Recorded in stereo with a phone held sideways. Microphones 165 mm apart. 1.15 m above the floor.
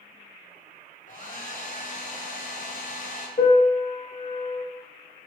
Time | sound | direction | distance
1.1 | a hair dryer | 55° left (ahead or behind) | 0.6 m
3.4 | a piano | 55° left (ahead or behind) | 0.7 m